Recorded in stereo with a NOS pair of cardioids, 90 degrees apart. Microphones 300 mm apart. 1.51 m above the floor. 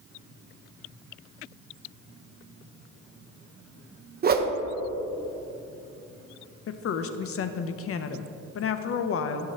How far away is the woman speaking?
About 0.7 m.